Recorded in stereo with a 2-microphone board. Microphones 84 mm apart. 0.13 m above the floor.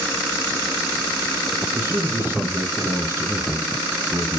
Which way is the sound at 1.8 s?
30° right (ahead or behind).